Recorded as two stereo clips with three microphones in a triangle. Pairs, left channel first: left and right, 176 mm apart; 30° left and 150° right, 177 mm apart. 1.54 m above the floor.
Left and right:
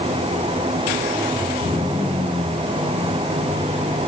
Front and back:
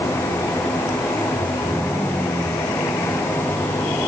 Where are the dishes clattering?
I don't hear dishes clattering.